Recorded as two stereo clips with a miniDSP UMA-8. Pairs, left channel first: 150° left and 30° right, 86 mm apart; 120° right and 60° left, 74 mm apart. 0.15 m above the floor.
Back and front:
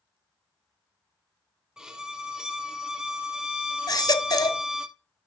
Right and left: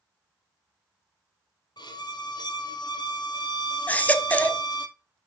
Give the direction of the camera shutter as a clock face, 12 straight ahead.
I don't hear a camera shutter.